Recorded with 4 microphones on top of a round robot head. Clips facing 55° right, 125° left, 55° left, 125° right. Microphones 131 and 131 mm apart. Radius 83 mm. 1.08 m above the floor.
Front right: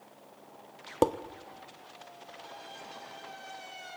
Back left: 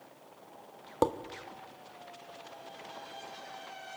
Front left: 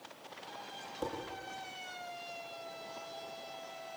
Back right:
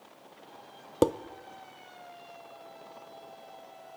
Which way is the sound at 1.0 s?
135° right.